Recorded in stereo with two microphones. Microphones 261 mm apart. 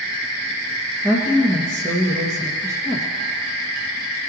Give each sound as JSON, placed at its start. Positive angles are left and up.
{"t": 1.0, "sound": "a woman speaking", "side_deg": -10, "distance_m": 1.9}